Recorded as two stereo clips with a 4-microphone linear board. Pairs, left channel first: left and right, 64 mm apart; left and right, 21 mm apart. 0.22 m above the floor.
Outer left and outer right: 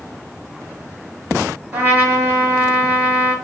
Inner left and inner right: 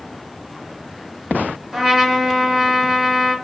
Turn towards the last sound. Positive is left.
turn(degrees=-30)  # may be behind; listen again after turning